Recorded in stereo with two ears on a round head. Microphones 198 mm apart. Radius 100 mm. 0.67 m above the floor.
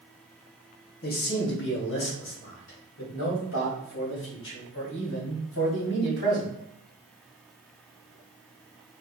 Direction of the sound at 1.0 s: 40° left (ahead or behind).